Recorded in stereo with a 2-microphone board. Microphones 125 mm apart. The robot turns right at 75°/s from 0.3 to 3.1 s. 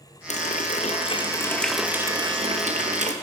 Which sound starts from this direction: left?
A running tap, at 0.3 s.